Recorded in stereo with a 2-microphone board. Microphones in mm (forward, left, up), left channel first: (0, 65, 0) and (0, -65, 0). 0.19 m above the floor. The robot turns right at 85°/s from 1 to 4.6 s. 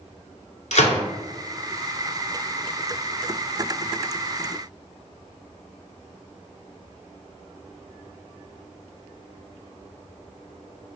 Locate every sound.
0.7 s a gunshot: 70° left (ahead or behind), 1.1 m